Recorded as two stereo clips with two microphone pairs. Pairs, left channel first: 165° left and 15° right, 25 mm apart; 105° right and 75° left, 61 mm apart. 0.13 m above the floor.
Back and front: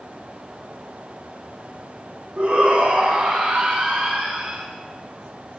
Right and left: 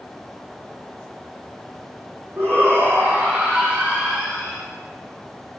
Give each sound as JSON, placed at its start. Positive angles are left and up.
{"t": 2.4, "sound": "a shout", "azimuth_deg": 25, "distance_m": 4.5}